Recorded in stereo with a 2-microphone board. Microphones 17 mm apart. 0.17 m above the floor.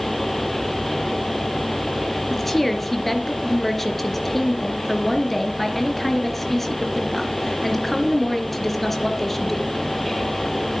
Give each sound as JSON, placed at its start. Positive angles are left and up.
{"t": 2.3, "sound": "a woman speaking", "side_deg": 10, "distance_m": 2.5}